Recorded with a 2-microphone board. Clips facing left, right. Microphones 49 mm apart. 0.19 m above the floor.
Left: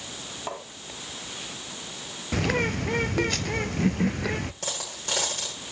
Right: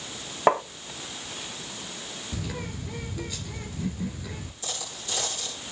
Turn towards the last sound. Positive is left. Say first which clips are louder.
# left 3 dB
turn(degrees=60)  # may be behind; listen again after turning